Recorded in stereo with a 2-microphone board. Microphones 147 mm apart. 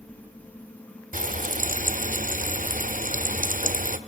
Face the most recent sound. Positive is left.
turn(degrees=-65)  # may be behind; listen again after turning